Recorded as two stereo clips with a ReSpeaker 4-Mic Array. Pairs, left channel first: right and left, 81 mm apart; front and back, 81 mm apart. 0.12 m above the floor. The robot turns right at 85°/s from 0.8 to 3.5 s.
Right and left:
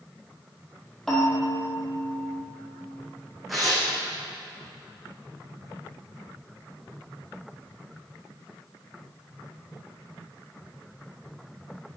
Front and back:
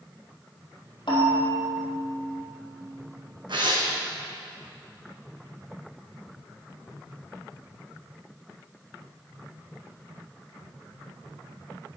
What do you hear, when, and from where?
1.1 s a bell: 5° right, 3 m; by 2.4 s 110° left, 3 m
3.5 s tearing paper: straight behind, 2.5 m